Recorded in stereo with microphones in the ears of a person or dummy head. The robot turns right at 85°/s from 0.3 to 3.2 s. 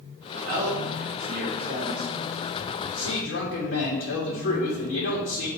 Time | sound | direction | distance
0.4 | a man speaking | 135° right | 0.8 m